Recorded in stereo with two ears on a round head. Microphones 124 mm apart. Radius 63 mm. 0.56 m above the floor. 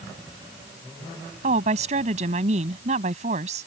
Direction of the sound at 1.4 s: 55° right (ahead or behind).